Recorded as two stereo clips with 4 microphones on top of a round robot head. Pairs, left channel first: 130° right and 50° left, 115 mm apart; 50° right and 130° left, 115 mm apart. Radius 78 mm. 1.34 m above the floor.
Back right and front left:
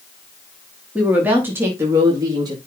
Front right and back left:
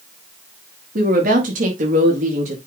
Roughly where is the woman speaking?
Behind left.